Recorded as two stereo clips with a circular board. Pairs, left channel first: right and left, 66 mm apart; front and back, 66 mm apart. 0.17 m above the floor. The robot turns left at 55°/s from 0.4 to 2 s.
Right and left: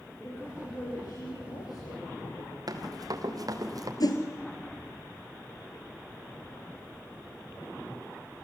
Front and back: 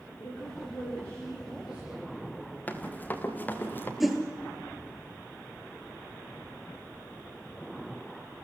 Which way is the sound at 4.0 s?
90° right.